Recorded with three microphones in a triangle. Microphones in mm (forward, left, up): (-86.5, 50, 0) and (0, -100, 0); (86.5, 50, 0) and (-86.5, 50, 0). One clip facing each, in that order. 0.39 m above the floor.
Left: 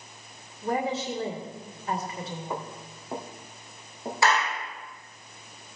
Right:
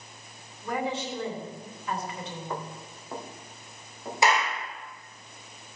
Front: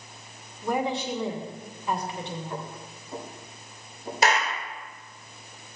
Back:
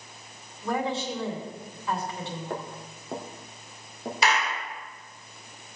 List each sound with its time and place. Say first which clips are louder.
0.6 s a woman speaking: left 3 dB, front 1 dB; 70° left, 3 m
2.5 s footsteps: left 1 dB, back 1 dB; 160° right, 3 m; by 4.1 s straight behind, 4 m
4.2 s a clap: even, front 2 dB; 5° left, 1.5 m